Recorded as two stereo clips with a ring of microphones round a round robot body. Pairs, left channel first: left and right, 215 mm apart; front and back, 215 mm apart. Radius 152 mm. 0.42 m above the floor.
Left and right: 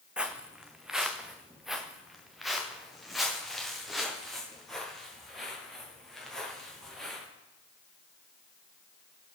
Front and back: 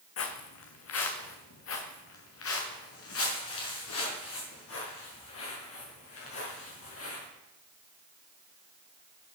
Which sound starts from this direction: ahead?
Footsteps, at 0.2 s.